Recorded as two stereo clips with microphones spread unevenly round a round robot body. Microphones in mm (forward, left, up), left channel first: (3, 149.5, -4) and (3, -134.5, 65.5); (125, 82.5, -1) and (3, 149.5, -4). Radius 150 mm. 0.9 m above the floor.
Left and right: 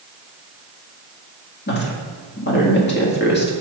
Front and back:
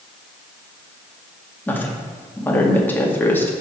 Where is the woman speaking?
45° left, 2.0 m.